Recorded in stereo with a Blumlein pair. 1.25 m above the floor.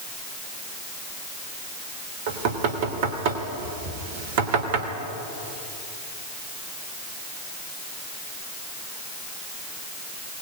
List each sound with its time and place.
2.3 s knocking: 50° right, 3 m